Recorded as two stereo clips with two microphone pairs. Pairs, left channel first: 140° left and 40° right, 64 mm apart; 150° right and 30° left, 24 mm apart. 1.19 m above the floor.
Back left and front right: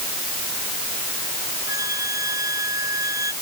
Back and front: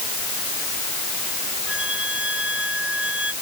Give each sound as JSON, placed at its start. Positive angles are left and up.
{"t": 1.7, "sound": "a flute", "azimuth_deg": -10}